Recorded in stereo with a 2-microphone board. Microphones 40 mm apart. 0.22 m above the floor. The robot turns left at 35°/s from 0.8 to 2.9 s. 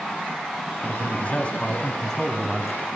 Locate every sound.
0.8 s a man speaking: 65° left, 1.5 m; by 2.9 s 5° right, 1.5 m